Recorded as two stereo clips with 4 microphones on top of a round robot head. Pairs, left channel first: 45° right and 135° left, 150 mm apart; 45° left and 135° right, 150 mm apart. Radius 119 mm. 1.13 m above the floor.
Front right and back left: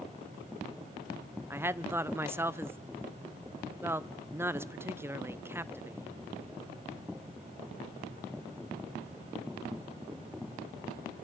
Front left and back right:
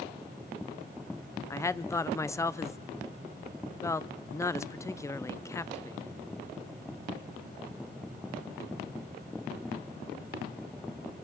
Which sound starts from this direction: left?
A woman speaking, at 1.5 s.